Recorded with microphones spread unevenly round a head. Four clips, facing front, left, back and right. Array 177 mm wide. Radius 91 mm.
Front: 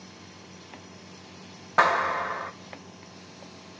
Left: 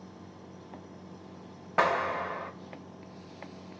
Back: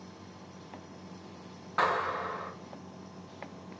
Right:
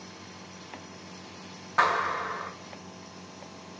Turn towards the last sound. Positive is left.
turn(degrees=45)